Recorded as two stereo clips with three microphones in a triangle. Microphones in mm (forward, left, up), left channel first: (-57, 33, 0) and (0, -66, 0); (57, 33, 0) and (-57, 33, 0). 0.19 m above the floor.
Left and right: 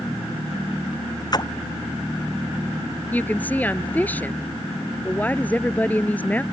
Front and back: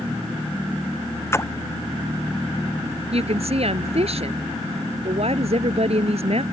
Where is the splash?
65° left.